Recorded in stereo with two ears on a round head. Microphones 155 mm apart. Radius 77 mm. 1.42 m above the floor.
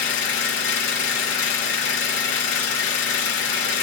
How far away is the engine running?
About 1.4 m.